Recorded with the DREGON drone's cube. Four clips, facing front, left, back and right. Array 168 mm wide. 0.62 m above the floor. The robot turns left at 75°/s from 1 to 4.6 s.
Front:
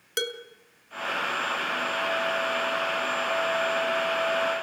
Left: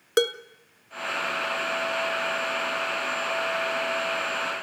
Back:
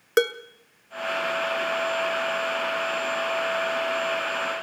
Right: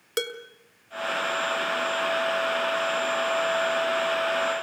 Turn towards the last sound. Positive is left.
turn(degrees=-120)